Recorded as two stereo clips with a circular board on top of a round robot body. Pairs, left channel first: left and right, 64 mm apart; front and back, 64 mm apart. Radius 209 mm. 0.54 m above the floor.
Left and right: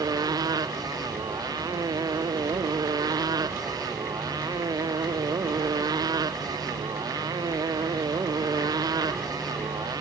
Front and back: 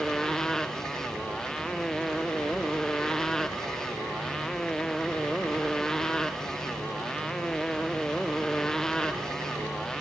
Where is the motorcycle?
85° right.